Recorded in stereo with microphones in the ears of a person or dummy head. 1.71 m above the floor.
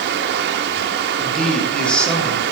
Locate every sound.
0.0 s running water: 65° right (ahead or behind), 2.5 m
1.2 s a man speaking: 5° left (ahead or behind), 7.5 m